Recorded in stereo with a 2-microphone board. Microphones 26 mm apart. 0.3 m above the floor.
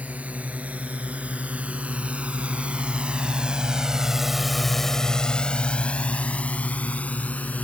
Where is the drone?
65° right (ahead or behind); by 7.7 s 70° left (ahead or behind).